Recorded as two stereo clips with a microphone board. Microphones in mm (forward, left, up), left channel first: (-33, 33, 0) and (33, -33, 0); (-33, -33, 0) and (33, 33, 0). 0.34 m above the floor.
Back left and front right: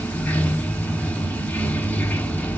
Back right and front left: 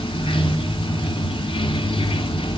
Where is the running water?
150° right, 1.0 m.